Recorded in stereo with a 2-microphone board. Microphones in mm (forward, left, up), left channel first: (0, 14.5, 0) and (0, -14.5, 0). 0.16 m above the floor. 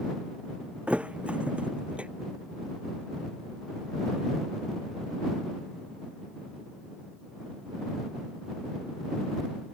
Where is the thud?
40° right (ahead or behind).